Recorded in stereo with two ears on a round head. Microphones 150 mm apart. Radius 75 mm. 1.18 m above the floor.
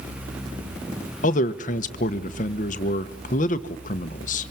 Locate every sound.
1.2 s a man speaking: 50° left (ahead or behind), 1.2 m